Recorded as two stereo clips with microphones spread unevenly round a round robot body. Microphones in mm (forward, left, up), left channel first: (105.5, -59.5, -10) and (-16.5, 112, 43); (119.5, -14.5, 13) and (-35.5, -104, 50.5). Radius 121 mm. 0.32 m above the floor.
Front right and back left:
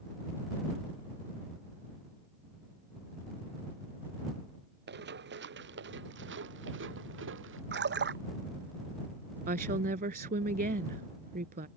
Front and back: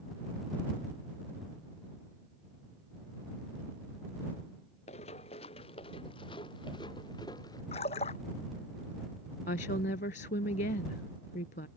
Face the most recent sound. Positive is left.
turn(degrees=80)